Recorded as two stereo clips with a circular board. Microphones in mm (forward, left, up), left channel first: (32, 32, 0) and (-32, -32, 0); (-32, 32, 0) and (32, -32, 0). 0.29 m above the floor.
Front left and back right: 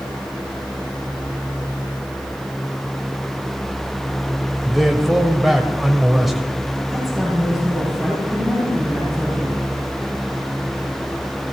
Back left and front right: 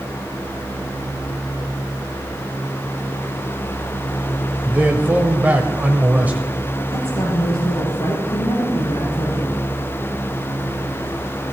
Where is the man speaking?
50° right, 1.2 m.